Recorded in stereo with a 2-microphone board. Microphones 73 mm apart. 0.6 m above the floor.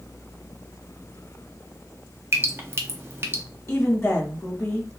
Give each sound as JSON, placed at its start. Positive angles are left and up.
{"t": 2.3, "sound": "dripping", "side_deg": -35, "distance_m": 0.5}
{"t": 3.7, "sound": "a woman speaking", "side_deg": 35, "distance_m": 1.2}